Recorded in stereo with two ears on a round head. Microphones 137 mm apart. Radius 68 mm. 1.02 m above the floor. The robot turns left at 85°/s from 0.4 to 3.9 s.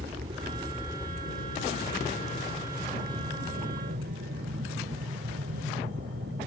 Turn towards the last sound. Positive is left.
turn(degrees=-75)  # may be behind; listen again after turning